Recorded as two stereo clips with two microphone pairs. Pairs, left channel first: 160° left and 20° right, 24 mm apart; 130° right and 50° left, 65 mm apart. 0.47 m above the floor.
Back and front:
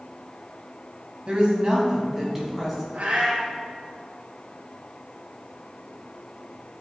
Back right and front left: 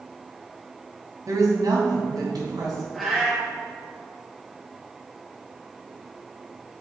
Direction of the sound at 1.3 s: 25° left.